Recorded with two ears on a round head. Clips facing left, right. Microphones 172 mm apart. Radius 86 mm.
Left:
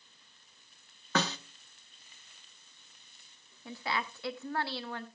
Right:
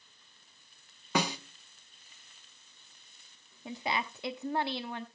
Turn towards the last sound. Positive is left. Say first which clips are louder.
# right 2 dB
turn(degrees=-15)  # may be behind; listen again after turning